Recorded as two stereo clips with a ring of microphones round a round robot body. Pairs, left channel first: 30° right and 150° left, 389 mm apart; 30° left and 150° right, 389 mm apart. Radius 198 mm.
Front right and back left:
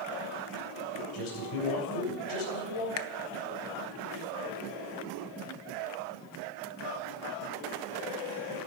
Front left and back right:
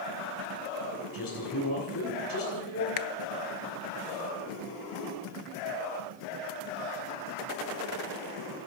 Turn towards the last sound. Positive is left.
turn(degrees=15)